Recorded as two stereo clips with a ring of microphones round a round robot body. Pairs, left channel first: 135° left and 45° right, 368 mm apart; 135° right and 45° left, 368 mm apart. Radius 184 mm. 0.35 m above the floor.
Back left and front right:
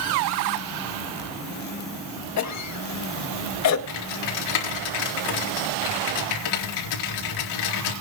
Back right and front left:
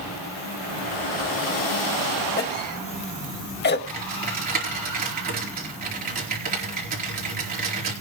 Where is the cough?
170° left, 1.7 m.